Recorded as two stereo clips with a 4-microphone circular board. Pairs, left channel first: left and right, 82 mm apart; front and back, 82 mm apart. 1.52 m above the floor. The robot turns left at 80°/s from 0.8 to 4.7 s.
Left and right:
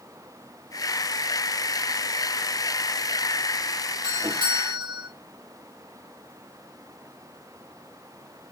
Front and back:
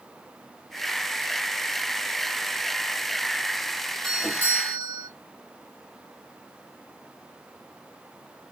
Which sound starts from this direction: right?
A doorbell, at 4.0 s.